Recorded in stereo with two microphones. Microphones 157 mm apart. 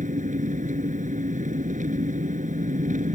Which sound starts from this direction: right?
An engine running, at 0.0 s.